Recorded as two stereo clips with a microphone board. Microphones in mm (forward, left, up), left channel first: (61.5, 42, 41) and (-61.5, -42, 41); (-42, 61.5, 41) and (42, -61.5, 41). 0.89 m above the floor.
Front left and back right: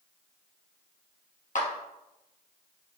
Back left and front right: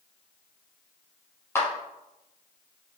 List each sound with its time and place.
1.6 s a clap: 55° left, 1.1 m